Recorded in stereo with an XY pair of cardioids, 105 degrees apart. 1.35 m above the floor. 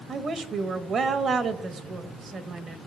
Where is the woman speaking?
50° right, 1.1 m.